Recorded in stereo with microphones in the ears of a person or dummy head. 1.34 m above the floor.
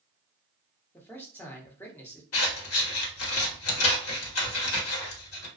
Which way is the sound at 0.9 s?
15° left (ahead or behind).